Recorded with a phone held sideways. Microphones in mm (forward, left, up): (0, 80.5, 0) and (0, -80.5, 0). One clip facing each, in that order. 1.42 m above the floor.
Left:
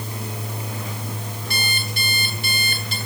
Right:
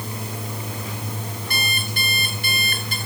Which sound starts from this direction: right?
An alarm clock, at 1.5 s.